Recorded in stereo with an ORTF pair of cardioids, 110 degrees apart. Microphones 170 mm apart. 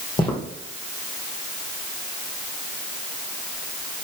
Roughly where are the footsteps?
Ahead left.